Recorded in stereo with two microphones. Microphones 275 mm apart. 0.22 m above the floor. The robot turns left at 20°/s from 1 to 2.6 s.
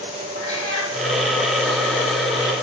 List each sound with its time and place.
0.3 s a cat meowing: 45° left (ahead or behind), 4.5 m